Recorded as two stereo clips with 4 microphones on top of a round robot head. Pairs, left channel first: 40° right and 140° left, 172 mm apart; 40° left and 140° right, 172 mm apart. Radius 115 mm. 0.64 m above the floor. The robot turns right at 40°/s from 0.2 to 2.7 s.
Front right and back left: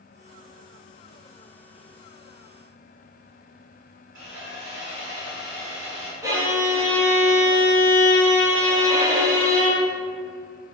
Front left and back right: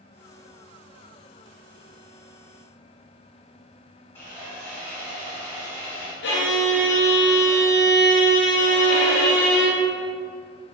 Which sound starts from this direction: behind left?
Sawing, at 4.2 s.